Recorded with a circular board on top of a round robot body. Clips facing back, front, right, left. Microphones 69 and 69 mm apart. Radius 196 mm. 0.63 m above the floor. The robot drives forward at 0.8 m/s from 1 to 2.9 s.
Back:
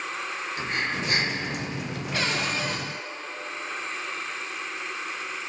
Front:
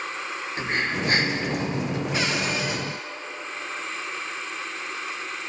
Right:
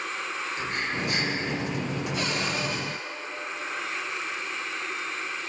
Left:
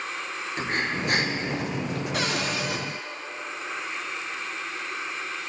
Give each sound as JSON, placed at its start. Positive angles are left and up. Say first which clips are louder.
{"t": 0.6, "sound": "breathing", "louder": "front 4 dB, left 4 dB", "azimuth_deg": 55, "distance_m": 4.5}
{"t": 2.1, "sound": "a cupboard door", "louder": "back 1 dB, left 2 dB", "azimuth_deg": 75, "distance_m": 5.0}